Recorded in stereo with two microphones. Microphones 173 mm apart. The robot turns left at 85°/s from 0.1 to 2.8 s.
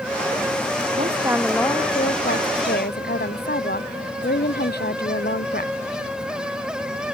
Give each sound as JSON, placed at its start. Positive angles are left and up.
{"t": 1.0, "sound": "a woman speaking", "azimuth_deg": -135}